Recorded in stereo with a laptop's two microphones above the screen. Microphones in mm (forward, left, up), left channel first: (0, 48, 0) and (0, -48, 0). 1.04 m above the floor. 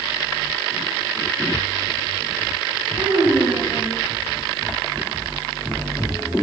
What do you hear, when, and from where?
2.9 s a child speaking: 70° right (ahead or behind), 4 m